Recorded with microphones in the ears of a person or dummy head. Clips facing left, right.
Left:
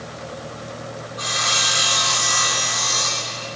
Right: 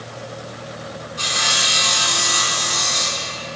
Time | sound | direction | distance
1.2 | sawing | 40° right (ahead or behind) | 5 m